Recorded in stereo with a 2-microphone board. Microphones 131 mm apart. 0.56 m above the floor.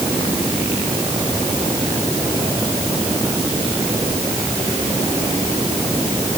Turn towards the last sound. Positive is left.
No sound to turn to.